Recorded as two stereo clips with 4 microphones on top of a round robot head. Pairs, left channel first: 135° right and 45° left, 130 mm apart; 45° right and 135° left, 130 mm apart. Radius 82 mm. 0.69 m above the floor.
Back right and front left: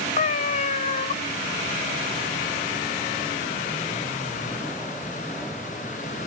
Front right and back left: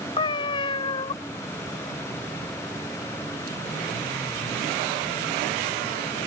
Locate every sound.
0.2 s a cat meowing: 100° right